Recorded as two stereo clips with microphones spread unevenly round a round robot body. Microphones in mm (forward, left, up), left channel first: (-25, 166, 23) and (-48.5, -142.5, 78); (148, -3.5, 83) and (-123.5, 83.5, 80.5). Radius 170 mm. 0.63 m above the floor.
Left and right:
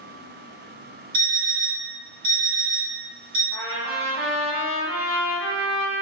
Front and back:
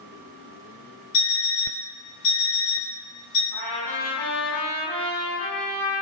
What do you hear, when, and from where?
1.1 s an alarm clock: 50° right, 1.1 m
3.5 s a trumpet: 80° right, 1.5 m